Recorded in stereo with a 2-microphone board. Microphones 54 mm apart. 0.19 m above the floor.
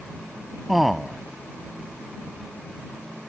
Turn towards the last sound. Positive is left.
turn(degrees=0)  # may be behind; listen again after turning